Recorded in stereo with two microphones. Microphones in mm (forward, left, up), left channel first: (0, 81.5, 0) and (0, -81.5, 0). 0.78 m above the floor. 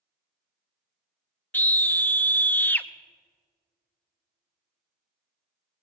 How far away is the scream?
About 0.5 m.